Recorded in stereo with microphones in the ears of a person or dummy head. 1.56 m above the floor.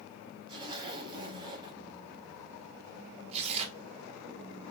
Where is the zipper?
25° right (ahead or behind), 0.9 m.